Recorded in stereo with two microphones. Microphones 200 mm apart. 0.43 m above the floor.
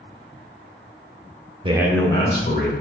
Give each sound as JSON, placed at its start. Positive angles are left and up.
{"t": 1.6, "sound": "a man speaking", "side_deg": -25, "distance_m": 0.8}